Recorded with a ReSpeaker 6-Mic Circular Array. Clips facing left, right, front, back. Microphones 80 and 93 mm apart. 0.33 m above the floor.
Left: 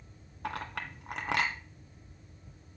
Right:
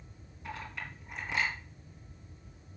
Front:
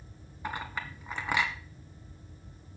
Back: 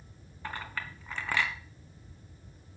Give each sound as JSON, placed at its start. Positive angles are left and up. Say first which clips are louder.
{"t": 0.4, "sound": "a clink", "louder": "left 4 dB, front 2 dB", "azimuth_deg": 75, "distance_m": 1.5}